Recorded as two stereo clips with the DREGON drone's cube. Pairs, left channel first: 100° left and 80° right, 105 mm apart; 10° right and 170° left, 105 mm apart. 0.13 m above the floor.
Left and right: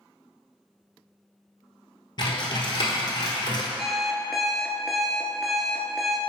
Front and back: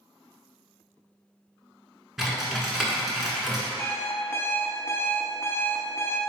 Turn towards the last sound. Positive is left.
turn(degrees=10)